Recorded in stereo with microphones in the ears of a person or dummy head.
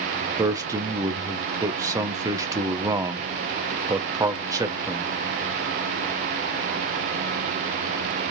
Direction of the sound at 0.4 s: 20° right (ahead or behind).